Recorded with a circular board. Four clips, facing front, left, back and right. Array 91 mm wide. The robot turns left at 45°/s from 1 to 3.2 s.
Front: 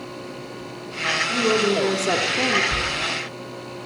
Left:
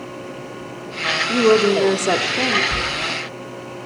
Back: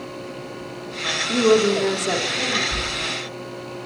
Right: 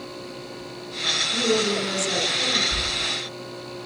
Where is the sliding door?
60° left, 5.5 m; by 2.8 s 55° left, 5.5 m.